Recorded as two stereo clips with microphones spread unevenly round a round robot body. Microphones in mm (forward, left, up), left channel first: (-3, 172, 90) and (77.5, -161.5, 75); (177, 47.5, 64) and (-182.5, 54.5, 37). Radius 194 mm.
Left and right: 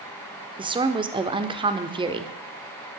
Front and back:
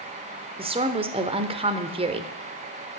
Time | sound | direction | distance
0.6 | a woman speaking | 130° right | 1.2 m